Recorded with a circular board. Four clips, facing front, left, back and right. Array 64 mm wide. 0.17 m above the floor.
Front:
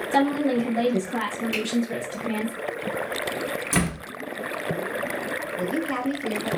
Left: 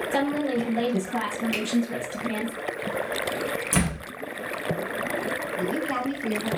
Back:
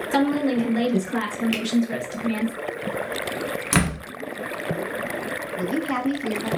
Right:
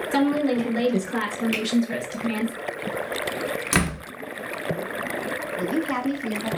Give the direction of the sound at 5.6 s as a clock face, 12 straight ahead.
5 o'clock.